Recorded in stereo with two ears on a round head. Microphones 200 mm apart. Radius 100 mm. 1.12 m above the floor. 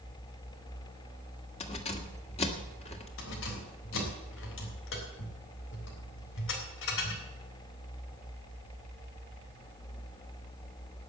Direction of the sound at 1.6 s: 25° left (ahead or behind).